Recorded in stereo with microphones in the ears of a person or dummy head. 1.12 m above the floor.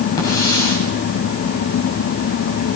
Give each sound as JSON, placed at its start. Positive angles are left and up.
{"t": 0.2, "sound": "a hiss", "side_deg": 25, "distance_m": 7.5}